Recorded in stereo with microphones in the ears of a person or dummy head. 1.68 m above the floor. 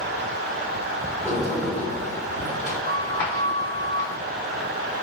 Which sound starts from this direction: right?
A sliding door, at 1.2 s.